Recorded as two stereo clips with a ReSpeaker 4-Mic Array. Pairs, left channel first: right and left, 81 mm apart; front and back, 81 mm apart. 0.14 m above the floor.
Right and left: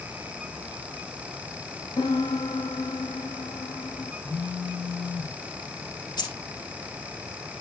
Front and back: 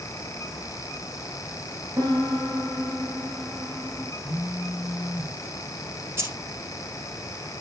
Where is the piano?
125° right, 3.5 m.